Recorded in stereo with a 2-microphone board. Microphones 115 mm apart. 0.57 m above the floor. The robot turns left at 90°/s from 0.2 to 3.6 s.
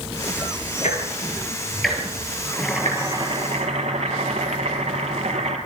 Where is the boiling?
15° left, 5 m; by 5.6 s 80° right, 5 m.